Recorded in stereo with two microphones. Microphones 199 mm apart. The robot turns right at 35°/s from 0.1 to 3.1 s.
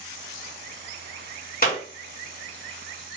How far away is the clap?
About 1.8 m.